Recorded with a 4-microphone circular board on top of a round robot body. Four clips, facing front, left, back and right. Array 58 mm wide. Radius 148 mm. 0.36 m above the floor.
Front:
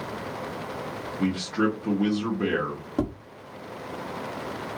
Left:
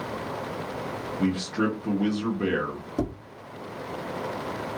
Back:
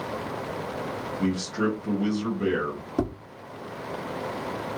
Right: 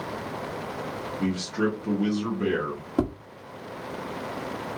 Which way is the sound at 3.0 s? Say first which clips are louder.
Right 3 dB, even; 75° right.